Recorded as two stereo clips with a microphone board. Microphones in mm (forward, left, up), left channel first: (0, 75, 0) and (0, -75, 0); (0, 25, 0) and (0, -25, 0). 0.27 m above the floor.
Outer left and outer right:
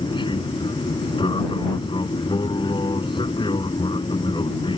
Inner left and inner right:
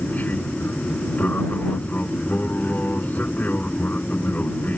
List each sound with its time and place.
0.0 s an aircraft: 35° left (ahead or behind)